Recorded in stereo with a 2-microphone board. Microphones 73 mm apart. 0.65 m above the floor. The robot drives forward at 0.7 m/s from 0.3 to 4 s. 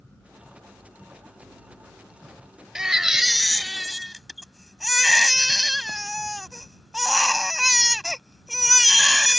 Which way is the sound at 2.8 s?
10° right (ahead or behind).